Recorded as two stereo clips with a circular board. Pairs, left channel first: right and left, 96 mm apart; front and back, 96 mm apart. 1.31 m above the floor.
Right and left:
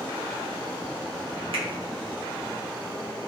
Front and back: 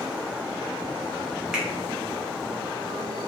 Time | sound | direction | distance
1.5 | a finger snap | 95° left | 0.7 m